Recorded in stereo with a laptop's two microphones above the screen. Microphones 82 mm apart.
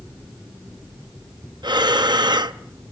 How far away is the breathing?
About 0.7 m.